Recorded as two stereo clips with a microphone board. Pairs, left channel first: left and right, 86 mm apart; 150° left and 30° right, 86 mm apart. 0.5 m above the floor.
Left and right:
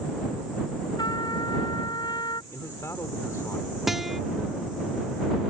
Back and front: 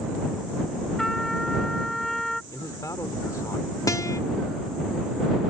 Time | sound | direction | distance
1.0 | a trumpet | 65° left | ?
2.5 | a man speaking | 125° left | ?
3.9 | a guitar | straight behind | ?